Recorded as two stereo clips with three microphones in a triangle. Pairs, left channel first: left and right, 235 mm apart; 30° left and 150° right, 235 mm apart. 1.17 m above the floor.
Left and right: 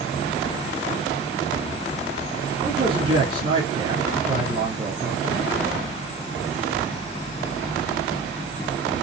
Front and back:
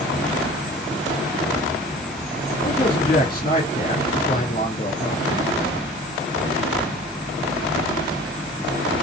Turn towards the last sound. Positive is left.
turn(degrees=-30)